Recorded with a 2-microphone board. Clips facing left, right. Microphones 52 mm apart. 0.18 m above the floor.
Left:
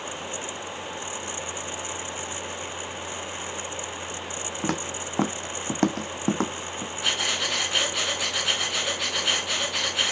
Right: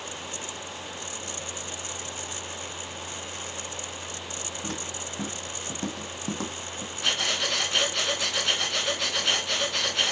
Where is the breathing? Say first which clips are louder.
Even; centre (ahead or behind), 1.5 m.